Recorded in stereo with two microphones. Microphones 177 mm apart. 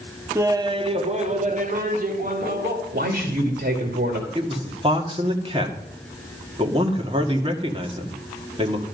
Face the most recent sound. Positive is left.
turn(degrees=-30)  # may be behind; listen again after turning